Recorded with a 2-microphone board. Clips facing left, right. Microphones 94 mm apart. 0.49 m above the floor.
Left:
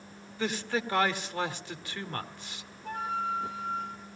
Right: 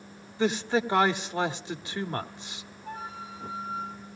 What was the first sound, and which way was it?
A man speaking, 20° right (ahead or behind).